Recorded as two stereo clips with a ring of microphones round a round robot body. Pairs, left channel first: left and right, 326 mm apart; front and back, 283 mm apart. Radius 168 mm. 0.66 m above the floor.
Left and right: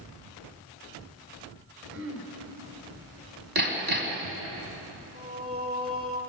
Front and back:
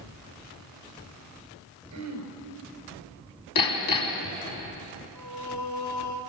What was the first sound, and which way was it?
Throat clearing, 145° right.